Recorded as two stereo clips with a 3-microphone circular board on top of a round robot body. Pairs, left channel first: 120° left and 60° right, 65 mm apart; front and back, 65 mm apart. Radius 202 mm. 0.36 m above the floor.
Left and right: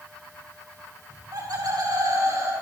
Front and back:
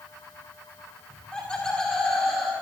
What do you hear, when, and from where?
1.1 s laughter: 70° right, 4 m; by 2.5 s 90° right, 4.5 m